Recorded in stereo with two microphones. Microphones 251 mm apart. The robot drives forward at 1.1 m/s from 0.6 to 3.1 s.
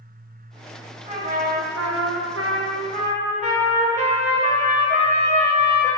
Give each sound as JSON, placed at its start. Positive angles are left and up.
{"t": 1.1, "sound": "a trumpet", "side_deg": -30, "distance_m": 1.3}